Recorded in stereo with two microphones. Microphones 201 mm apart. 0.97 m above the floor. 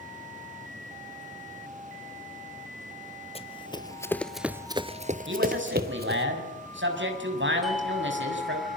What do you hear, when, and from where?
3.4 s running footsteps: 30° left (ahead or behind), 1.7 m; by 6.3 s 55° right (ahead or behind), 2 m
5.3 s a man speaking: 70° right (ahead or behind), 7 m
7.6 s a doorbell: centre (ahead or behind), 2.5 m